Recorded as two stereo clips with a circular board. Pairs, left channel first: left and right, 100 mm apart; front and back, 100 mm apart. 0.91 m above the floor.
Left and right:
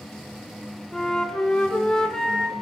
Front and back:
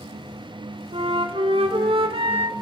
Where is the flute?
175° left, 2.5 m.